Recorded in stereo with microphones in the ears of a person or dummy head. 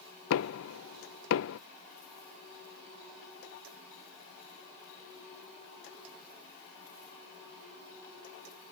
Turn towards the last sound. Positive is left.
turn(degrees=70)  # may be behind; listen again after turning